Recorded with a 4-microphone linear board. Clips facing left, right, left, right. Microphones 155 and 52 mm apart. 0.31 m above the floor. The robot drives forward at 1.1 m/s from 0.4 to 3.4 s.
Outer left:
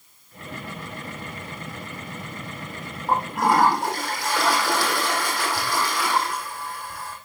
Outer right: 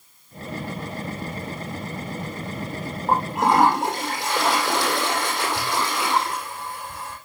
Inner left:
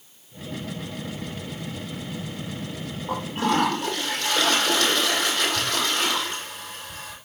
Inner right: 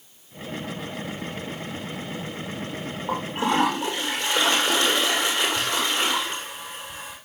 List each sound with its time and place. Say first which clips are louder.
3.1 s a toilet flushing: outer right 1 dB, even; 20° right (ahead or behind), 8 m